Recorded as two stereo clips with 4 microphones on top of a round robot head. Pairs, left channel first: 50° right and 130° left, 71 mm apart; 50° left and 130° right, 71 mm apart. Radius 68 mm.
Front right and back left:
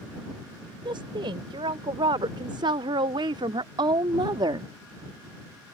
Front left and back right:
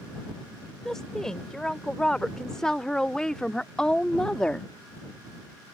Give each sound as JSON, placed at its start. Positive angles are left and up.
{"t": 0.8, "sound": "a woman speaking", "azimuth_deg": 135}